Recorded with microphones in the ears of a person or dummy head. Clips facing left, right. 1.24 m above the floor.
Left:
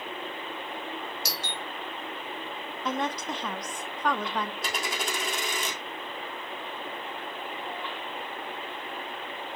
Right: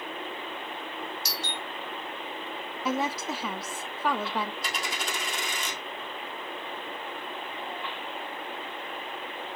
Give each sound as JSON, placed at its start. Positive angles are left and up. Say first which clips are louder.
{"t": 1.2, "sound": "a doorbell", "louder": "even", "side_deg": 65, "distance_m": 3.0}
{"t": 2.9, "sound": "a woman speaking", "louder": "right 1 dB", "side_deg": -5, "distance_m": 0.5}
{"t": 4.6, "sound": "a dropped coin", "louder": "left 2 dB", "side_deg": 45, "distance_m": 2.5}